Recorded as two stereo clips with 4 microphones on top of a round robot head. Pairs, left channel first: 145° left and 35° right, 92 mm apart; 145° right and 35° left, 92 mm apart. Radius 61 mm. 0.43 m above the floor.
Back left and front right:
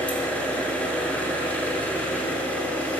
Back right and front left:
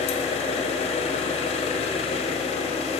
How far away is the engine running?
About 0.7 m.